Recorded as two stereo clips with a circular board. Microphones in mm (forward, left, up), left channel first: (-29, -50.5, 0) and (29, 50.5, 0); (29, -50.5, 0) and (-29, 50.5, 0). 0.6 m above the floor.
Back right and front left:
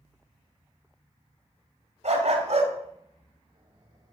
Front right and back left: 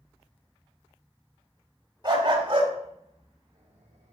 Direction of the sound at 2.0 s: 70° left.